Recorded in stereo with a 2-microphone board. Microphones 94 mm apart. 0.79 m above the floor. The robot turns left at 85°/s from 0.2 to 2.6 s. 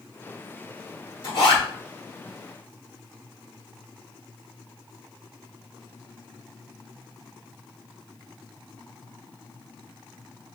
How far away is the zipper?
About 1.4 m.